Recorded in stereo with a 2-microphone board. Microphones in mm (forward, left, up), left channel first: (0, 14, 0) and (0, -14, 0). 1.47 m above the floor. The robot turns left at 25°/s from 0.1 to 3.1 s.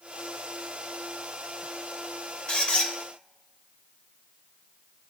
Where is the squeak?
40° left (ahead or behind), 1.5 m; by 2.9 s 50° left (ahead or behind), 1.5 m.